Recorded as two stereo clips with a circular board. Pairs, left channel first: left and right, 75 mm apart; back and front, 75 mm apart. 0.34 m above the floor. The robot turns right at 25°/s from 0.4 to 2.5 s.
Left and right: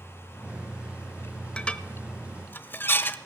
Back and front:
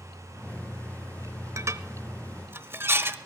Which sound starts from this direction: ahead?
Dishes clattering, at 1.6 s.